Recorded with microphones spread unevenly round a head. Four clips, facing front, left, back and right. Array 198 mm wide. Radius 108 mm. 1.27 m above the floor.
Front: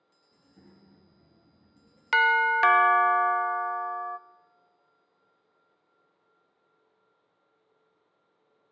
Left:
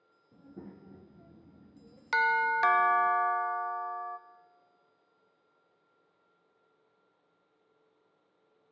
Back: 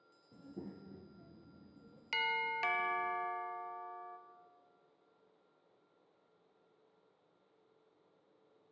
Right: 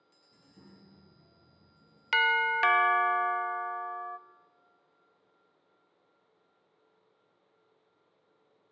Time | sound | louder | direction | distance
0.3 | a child speaking | left 9 dB, back 9 dB | 145° left | 1.2 m
2.1 | a doorbell | even, front 16 dB | 5° left | 0.6 m